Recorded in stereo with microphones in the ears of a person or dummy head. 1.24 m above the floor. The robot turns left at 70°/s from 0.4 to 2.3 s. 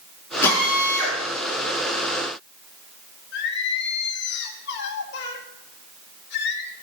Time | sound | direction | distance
0.4 | a drill | 15° left | 5.5 m
3.3 | singing | 65° left (ahead or behind) | 1.7 m